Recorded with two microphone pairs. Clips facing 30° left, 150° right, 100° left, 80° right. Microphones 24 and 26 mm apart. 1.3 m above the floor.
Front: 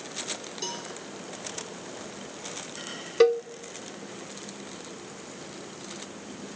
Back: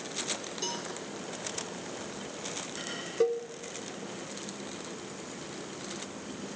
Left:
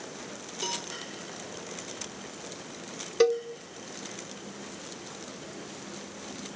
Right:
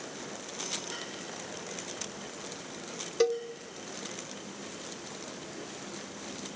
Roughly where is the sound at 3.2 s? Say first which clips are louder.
Front 8 dB, left 4 dB; ahead left.